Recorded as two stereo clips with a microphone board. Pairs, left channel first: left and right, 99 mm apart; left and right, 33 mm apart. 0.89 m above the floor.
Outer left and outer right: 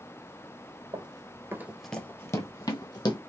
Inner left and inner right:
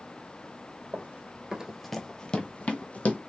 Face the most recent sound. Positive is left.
turn(degrees=50)  # may be behind; listen again after turning